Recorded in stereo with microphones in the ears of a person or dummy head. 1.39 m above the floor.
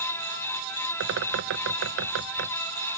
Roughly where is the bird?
Right.